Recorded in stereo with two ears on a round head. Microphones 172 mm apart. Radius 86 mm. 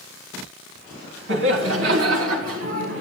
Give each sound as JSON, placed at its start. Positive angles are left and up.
{"t": 1.3, "sound": "laughter", "side_deg": -70, "distance_m": 3.0}